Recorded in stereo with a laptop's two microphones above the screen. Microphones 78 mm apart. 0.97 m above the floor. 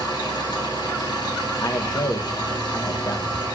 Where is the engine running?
80° left, 4 m.